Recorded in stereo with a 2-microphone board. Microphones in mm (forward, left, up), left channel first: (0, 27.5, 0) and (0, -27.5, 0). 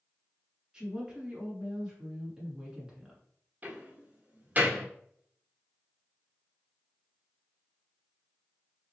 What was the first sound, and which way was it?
A woman speaking, 15° right (ahead or behind).